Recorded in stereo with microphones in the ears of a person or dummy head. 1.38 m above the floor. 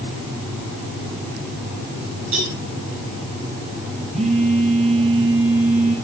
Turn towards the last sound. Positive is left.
turn(degrees=-45)  # may be behind; listen again after turning